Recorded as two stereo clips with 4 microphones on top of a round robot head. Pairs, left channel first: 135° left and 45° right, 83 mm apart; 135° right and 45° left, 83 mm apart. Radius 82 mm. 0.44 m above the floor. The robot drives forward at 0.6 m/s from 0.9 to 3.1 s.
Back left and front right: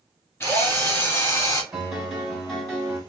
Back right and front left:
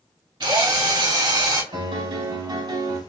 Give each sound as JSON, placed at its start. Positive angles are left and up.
{"t": 0.4, "sound": "a drill", "azimuth_deg": 75, "distance_m": 2.5}
{"t": 1.7, "sound": "a piano", "azimuth_deg": 40, "distance_m": 2.5}